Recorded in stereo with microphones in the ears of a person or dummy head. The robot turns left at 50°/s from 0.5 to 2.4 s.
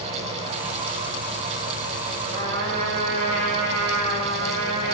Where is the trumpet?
60° right (ahead or behind), 3 m; by 5.0 s 65° right (ahead or behind), 3 m.